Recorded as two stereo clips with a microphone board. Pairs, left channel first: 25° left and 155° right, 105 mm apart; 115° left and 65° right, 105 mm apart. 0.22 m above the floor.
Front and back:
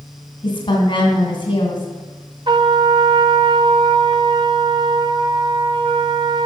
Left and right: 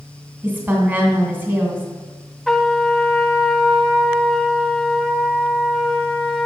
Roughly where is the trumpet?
Behind.